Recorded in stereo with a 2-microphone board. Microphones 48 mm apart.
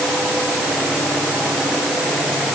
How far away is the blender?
No blender in this recording.